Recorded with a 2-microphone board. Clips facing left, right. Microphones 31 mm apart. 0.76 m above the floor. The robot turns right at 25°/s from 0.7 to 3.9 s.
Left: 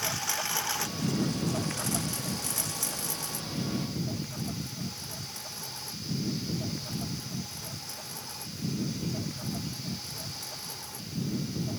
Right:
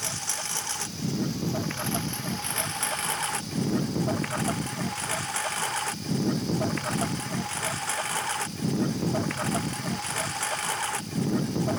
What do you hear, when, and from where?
0.0 s a lawn mower: 170° left; by 11.8 s 110° right